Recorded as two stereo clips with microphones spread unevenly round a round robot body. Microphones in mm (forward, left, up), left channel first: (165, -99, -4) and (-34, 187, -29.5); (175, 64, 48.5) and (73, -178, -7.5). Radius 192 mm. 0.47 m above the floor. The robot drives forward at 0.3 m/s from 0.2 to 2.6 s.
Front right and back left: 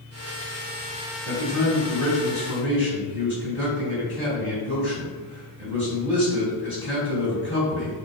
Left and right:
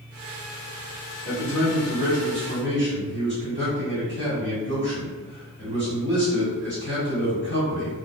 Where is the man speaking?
120° right, 1.4 m; by 8.1 s 135° right, 1.6 m.